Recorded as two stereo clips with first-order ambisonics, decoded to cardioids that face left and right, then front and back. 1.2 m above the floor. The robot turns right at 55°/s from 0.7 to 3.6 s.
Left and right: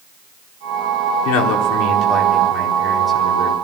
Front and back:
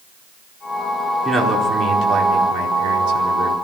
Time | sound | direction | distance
1.2 | a man speaking | 90° left | 4.5 m